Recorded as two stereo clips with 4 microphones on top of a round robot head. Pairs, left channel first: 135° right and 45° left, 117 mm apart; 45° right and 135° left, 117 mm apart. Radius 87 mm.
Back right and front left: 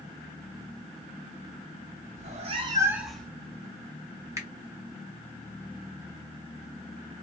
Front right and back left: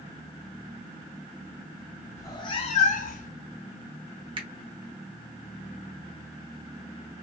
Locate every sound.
2.2 s a cat meowing: 20° left, 0.7 m; by 3.3 s 55° right, 0.6 m
4.4 s a finger snap: 105° left, 1.1 m